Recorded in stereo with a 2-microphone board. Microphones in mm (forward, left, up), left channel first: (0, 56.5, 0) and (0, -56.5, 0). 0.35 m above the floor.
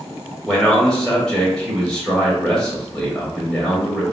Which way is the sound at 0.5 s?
5° left (ahead or behind).